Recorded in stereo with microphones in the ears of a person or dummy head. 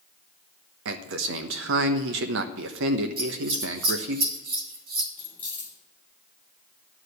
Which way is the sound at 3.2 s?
50° right (ahead or behind).